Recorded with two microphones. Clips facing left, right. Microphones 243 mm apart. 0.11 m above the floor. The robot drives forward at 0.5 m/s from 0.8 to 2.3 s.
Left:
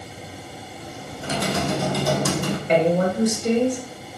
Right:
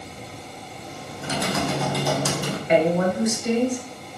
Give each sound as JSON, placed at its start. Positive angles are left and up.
{"t": 1.2, "sound": "typing on a keyboard", "side_deg": 35, "distance_m": 1.2}
{"t": 2.7, "sound": "a woman speaking", "side_deg": 35, "distance_m": 1.3}